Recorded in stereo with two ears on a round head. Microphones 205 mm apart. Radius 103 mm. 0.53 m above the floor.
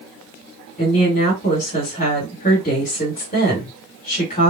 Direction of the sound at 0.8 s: 30° left (ahead or behind).